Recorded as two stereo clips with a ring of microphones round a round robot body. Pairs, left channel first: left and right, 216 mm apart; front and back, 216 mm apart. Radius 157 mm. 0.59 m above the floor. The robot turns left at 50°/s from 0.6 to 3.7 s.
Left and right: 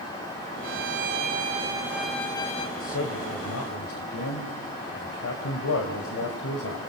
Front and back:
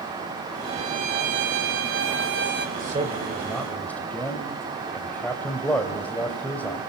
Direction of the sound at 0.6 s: 110° right.